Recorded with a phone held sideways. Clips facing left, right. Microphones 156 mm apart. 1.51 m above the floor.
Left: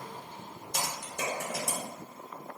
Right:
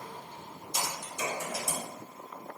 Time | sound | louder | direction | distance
0.7 | typing on a keyboard | even | 60° left (ahead or behind) | 0.8 m